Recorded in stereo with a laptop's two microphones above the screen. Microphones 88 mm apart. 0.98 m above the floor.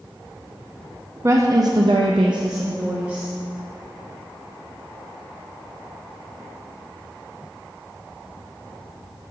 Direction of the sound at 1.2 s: 35° right (ahead or behind).